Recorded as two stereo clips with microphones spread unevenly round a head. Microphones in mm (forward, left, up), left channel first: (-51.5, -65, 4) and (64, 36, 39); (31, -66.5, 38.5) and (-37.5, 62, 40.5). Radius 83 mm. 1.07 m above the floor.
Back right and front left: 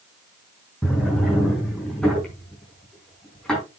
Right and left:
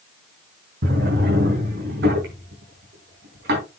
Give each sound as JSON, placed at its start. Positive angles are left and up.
{"t": 0.8, "sound": "a drawer", "azimuth_deg": 130, "distance_m": 4.0}